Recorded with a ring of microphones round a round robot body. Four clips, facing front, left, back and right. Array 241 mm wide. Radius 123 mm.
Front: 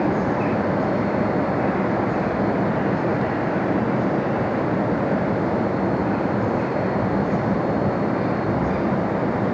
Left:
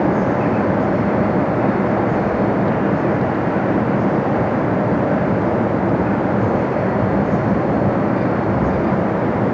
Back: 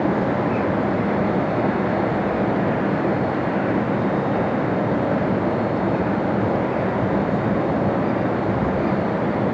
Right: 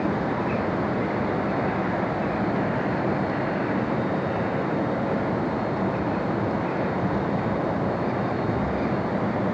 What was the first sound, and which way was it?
Only background noise.